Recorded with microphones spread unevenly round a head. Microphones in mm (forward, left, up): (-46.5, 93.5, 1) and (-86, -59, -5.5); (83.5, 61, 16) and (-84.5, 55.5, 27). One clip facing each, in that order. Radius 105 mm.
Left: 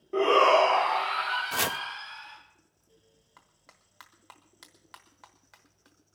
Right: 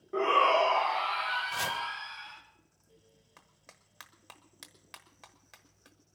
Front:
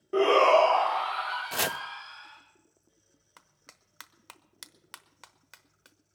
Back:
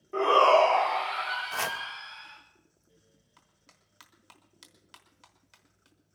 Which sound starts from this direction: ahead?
A shout, at 0.1 s.